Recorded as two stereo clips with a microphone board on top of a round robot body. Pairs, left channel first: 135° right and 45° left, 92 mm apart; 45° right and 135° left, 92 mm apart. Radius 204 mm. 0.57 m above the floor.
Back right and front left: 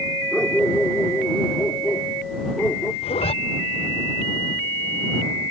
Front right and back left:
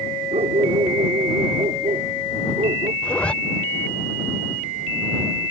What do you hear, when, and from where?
0.3 s a dog barking: 140° left; by 2.9 s 145° left
3.0 s a zipper: 125° right